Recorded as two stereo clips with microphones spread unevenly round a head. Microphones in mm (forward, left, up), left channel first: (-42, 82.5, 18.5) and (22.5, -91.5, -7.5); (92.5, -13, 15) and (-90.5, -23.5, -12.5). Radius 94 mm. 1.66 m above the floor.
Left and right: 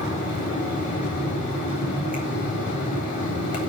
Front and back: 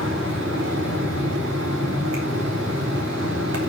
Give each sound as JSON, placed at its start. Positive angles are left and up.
{"t": 0.0, "sound": "a fan", "azimuth_deg": 155, "distance_m": 3.5}